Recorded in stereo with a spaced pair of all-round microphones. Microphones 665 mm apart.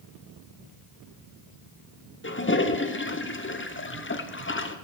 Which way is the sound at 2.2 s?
20° left (ahead or behind).